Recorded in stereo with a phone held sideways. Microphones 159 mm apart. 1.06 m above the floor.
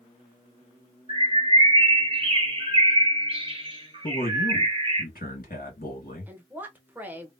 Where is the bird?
35° right (ahead or behind), 0.9 m.